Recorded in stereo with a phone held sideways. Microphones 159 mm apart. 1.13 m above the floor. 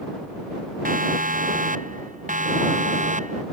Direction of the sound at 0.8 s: 60° right (ahead or behind).